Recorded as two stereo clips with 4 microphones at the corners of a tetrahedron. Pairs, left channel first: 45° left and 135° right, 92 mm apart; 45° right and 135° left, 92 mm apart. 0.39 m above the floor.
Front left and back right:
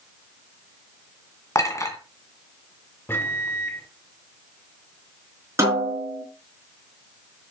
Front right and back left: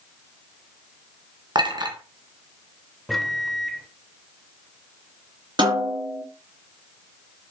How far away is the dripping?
No dripping in this recording.